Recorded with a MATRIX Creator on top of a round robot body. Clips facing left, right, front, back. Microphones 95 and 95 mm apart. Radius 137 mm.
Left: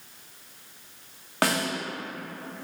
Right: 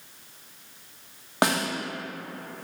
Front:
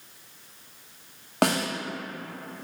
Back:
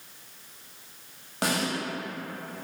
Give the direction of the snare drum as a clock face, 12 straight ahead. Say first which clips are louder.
Right 1 dB, front 4 dB; 1 o'clock.